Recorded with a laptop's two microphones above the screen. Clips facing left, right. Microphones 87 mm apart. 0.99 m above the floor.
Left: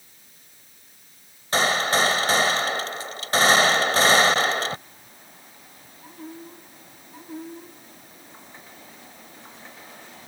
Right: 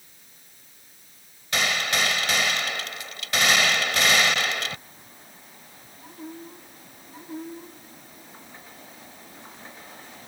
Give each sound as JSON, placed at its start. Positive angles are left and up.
{"t": 1.5, "sound": "a gunshot", "side_deg": 35}